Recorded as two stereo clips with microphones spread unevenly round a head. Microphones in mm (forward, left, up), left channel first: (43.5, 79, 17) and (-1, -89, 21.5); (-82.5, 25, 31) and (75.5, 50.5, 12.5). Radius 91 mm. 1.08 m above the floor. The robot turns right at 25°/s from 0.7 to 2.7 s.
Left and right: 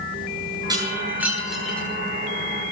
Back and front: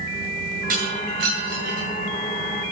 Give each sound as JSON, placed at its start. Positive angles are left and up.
{"t": 0.7, "sound": "breaking glass", "azimuth_deg": -40, "distance_m": 9.0}